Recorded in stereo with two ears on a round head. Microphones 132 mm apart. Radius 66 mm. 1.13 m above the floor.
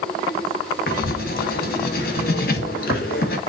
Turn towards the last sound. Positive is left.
turn(degrees=65)  # may be behind; listen again after turning